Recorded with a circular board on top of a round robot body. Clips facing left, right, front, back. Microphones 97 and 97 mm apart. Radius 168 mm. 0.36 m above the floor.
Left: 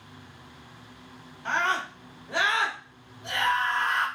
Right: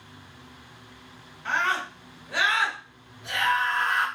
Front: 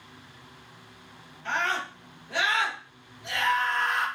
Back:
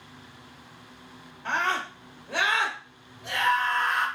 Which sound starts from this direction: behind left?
A scream, at 1.4 s.